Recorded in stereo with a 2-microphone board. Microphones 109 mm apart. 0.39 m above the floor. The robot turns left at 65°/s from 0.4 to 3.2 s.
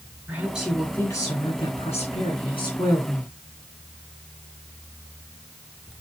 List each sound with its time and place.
0.3 s a woman speaking: 165° right, 4 m; by 3.3 s 10° left, 4 m